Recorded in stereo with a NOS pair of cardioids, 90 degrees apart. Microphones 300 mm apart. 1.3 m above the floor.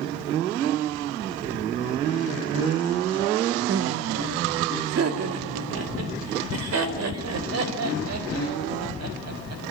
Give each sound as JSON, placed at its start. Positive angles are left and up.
{"t": 3.7, "sound": "laughter", "azimuth_deg": -45, "distance_m": 1.2}